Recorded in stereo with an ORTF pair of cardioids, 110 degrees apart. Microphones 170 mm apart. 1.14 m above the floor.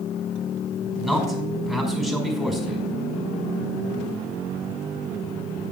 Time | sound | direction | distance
1.0 | a man speaking | straight ahead | 5 m